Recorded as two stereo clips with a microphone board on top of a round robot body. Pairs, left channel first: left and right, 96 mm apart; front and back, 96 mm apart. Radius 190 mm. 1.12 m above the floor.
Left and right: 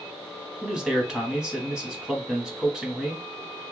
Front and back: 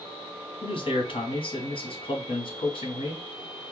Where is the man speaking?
10° right, 1.3 m.